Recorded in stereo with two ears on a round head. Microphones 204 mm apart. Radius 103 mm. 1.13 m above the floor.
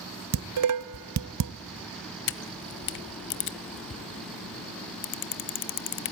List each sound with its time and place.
0.3 s dishes clattering: 75° right (ahead or behind), 0.5 m
2.3 s a camera shutter: 50° left (ahead or behind), 0.9 m